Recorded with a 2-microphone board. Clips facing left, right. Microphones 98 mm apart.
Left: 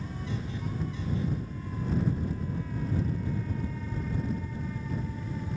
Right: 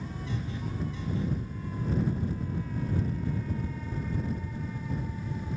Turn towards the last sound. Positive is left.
No sound to turn to.